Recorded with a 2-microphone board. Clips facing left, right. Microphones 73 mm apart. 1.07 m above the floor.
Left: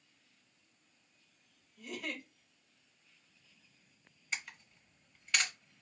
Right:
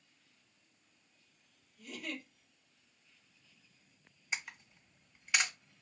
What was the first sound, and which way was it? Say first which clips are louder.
A giggle: left 2 dB; 75° left (ahead or behind).